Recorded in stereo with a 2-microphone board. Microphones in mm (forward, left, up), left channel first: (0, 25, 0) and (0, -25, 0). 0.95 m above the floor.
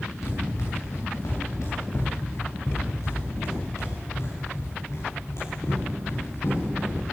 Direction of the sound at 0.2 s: 80° left.